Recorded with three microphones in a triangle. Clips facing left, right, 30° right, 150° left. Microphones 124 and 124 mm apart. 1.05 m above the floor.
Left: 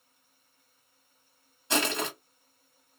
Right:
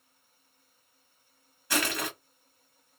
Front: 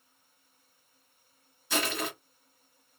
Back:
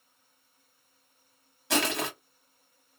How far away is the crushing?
About 1.3 m.